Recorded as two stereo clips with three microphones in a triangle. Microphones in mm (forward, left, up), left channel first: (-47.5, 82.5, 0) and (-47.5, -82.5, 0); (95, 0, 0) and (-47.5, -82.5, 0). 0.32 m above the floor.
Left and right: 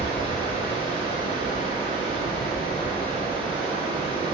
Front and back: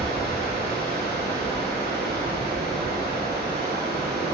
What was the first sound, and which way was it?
Running water, 150° right.